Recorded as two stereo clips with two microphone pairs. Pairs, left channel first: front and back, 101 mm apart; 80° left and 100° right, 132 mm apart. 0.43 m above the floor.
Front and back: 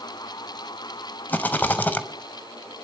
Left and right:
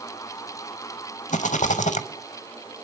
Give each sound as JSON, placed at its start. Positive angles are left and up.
{"t": 1.3, "sound": "a rattle", "azimuth_deg": 75, "distance_m": 0.6}